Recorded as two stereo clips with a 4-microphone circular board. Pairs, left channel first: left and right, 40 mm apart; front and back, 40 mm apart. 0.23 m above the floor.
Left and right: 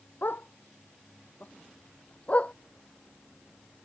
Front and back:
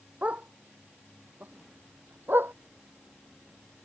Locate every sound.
0.2 s a dog barking: 130° left; by 2.5 s 150° left